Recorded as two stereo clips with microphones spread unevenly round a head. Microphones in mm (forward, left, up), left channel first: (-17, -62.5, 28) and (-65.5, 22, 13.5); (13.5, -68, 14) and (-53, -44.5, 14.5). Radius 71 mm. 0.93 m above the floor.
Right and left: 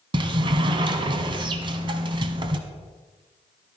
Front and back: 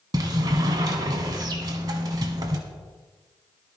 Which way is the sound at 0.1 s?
155° left.